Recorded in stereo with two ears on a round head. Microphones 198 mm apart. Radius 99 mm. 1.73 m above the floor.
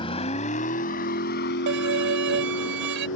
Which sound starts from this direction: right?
A violin, at 1.7 s.